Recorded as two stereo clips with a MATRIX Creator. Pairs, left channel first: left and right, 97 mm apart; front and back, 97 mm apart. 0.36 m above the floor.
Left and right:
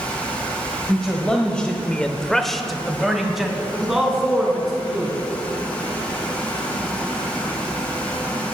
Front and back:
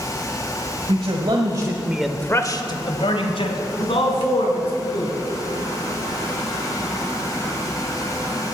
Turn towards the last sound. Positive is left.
turn(degrees=-5)